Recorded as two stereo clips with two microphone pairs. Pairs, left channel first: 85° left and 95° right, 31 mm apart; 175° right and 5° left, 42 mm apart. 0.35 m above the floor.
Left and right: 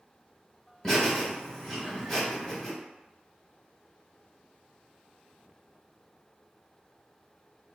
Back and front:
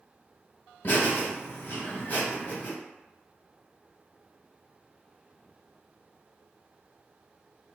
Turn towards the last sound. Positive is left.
turn(degrees=145)